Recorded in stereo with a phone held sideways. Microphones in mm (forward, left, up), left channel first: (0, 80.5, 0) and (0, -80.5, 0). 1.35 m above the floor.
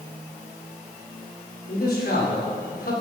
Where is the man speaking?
75° left (ahead or behind), 5 m.